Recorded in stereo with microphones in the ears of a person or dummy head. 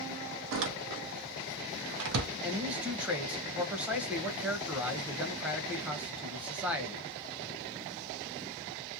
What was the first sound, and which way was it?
A door slam, 65° right (ahead or behind).